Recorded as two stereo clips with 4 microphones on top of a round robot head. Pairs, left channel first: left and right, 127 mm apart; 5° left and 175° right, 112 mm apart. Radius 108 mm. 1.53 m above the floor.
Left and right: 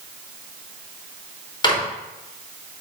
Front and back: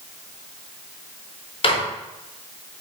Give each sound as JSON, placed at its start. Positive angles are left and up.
{"t": 1.6, "sound": "a microwave", "azimuth_deg": 35, "distance_m": 4.0}